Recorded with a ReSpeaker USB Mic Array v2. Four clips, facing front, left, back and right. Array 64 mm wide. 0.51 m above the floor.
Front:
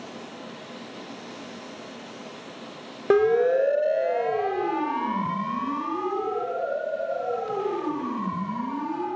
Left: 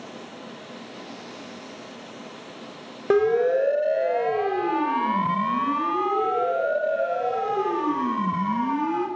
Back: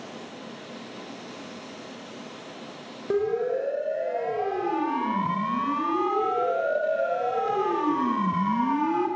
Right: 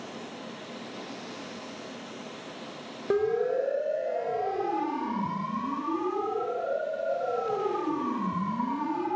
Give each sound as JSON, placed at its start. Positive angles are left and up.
{"t": 3.1, "sound": "a siren", "azimuth_deg": 35, "distance_m": 3.0}